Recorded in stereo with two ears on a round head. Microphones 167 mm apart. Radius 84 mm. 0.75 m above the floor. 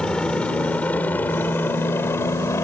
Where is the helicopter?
5° left (ahead or behind); by 2.6 s 15° left (ahead or behind).